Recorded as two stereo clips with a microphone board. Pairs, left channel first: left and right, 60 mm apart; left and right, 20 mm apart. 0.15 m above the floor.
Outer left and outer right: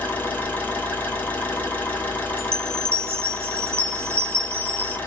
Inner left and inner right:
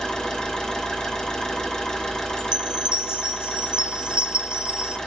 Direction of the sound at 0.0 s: 35° left (ahead or behind).